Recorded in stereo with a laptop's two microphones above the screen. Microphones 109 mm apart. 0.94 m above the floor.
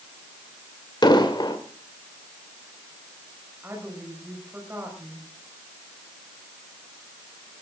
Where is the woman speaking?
20° right (ahead or behind), 5.5 m.